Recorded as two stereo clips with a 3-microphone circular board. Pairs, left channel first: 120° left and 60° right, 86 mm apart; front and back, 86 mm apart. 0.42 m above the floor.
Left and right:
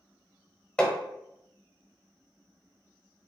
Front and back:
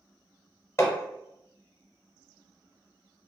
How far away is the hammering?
About 0.9 m.